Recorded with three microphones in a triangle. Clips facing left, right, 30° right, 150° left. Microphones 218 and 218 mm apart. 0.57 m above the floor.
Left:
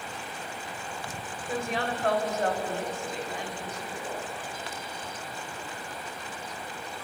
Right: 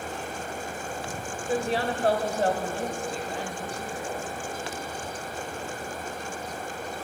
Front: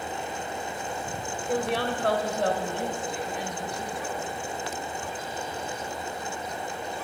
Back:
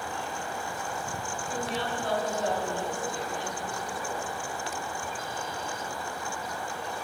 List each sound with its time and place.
1.5 s a woman speaking: 35° right, 2.5 m